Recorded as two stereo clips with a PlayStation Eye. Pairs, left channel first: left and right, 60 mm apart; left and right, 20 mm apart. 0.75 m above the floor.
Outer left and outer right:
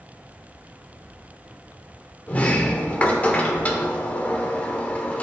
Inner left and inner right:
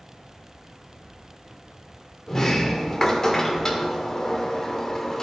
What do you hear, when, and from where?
2.3 s a sliding door: 25° left (ahead or behind), 0.9 m